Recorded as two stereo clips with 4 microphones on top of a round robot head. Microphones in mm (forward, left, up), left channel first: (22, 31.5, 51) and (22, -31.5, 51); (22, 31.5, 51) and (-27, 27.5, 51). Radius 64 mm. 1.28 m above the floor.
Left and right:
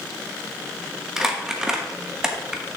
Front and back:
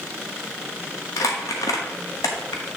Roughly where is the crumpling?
Ahead.